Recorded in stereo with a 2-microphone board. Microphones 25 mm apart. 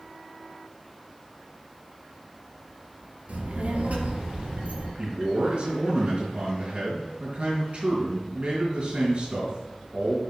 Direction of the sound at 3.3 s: 75° right (ahead or behind).